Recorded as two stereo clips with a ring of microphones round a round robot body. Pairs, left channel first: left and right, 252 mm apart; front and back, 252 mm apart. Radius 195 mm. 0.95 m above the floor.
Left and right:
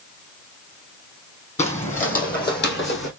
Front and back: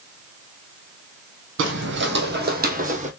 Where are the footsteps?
150° left, 1.8 m; by 3.1 s 120° left, 1.7 m.